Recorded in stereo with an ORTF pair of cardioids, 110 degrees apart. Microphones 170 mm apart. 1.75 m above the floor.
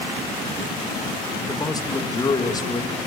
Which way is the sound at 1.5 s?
20° left.